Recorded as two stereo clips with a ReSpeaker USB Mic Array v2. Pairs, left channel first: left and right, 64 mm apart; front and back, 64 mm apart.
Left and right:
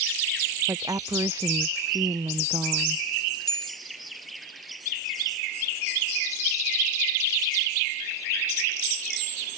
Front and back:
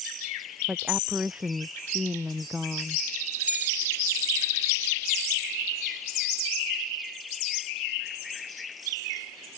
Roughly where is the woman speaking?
Right.